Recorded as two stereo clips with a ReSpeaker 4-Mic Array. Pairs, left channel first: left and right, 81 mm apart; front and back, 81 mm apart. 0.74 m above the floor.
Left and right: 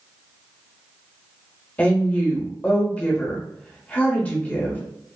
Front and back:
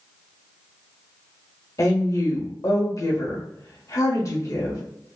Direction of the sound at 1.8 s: 25° left.